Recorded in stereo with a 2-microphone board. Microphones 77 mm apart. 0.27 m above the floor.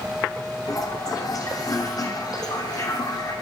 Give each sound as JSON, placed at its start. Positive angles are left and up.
{"t": 0.7, "sound": "a toilet flushing", "side_deg": 50, "distance_m": 5.5}